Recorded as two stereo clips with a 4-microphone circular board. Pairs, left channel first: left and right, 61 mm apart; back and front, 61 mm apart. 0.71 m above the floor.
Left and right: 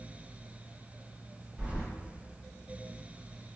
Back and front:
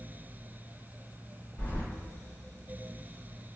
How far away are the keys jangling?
About 1.4 m.